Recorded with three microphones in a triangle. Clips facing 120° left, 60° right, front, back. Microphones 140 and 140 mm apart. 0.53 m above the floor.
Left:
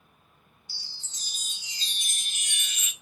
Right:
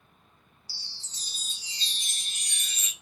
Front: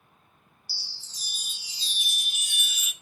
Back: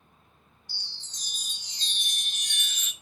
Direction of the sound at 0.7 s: 75° right.